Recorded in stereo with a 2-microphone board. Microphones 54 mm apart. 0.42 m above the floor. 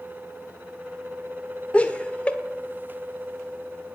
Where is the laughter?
20° left (ahead or behind), 1.3 m.